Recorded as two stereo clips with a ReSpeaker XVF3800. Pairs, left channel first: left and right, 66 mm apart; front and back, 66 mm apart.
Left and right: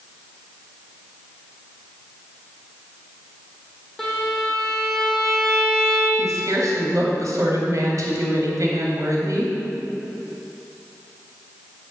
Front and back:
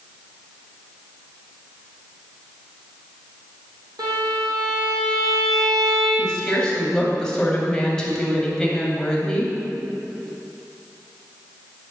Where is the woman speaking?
80° right, 2.5 m.